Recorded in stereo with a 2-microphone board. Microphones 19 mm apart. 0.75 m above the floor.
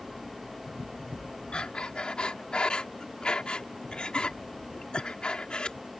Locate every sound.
1.5 s breathing: 60° left (ahead or behind)